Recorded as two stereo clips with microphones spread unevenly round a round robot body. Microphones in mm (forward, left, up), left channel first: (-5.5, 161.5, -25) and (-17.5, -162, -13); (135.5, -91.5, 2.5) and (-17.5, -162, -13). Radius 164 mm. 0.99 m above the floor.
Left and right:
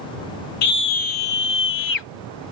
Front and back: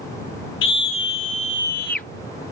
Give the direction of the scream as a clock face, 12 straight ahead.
11 o'clock.